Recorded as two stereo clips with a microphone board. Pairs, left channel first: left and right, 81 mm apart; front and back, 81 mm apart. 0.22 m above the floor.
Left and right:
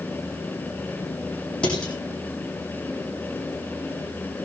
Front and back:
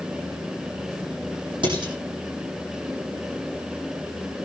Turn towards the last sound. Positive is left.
turn(degrees=170)